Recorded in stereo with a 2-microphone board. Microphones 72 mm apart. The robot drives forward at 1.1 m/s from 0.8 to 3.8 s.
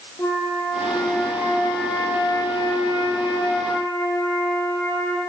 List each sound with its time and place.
0.2 s a flute: 35° left (ahead or behind), 2.5 m; by 5.2 s 50° left (ahead or behind), 1.9 m